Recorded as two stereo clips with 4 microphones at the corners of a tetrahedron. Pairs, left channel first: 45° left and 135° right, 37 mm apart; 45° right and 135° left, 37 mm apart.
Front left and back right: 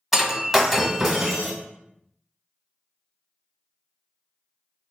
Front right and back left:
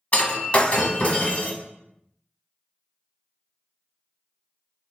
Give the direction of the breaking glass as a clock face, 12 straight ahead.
2 o'clock.